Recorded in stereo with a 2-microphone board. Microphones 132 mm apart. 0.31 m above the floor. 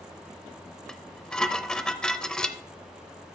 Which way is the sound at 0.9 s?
5° left (ahead or behind).